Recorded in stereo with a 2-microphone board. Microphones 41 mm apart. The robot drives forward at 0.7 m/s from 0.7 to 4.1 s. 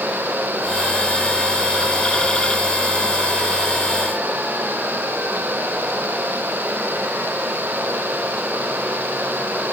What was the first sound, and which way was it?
Only background noise.